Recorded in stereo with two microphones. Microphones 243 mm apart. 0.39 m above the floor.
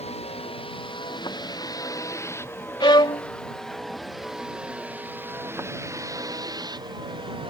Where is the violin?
20° left (ahead or behind).